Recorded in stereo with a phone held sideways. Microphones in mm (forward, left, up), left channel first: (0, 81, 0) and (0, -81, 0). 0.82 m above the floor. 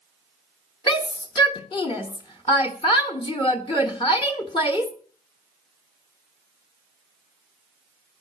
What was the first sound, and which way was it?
A shout, 30° left (ahead or behind).